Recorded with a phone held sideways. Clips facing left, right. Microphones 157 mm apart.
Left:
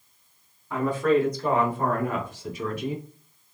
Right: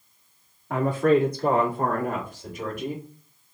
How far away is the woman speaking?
About 1.7 m.